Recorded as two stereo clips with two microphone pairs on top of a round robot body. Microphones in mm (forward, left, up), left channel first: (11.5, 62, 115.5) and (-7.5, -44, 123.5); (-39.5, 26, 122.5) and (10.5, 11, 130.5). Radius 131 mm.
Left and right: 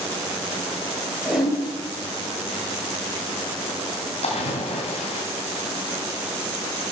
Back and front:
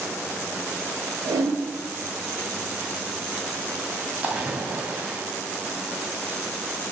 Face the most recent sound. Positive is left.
turn(degrees=50)